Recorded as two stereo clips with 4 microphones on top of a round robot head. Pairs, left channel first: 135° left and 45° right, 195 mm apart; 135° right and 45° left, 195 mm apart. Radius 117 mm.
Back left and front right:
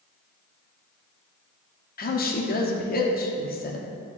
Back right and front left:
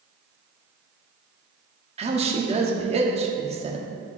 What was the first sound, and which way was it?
A woman speaking, 100° left.